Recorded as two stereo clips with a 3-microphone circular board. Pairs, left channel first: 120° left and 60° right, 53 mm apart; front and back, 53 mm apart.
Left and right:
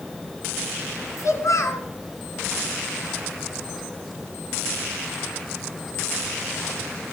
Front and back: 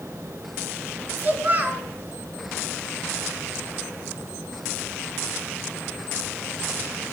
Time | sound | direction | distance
1.2 | a child speaking | 125° left | 3 m